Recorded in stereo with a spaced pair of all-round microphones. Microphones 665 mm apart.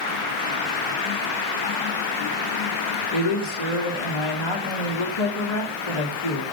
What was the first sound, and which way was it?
A woman speaking, 40° left (ahead or behind).